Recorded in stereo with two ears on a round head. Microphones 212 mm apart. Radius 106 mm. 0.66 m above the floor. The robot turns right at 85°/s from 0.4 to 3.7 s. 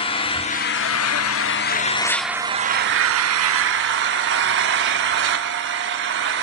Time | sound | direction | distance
0.0 | an engine running | 25° left | 1.0 m